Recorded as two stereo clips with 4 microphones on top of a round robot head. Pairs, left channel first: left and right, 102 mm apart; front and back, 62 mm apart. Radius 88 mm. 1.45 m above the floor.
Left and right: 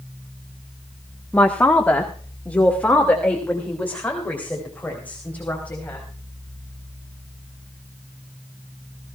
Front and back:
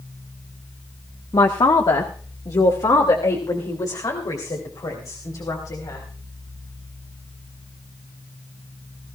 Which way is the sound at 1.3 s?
15° left.